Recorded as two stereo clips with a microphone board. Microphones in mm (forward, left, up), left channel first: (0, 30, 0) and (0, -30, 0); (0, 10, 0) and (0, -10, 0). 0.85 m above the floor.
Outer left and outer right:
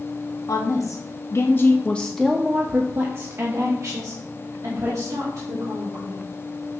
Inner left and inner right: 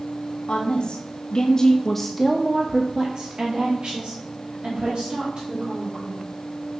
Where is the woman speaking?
65° left (ahead or behind), 1.0 m; by 6.3 s 70° right (ahead or behind), 2 m.